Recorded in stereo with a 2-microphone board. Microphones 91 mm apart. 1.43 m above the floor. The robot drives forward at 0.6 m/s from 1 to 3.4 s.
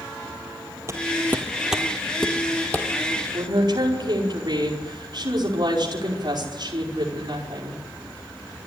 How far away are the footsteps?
About 2 m.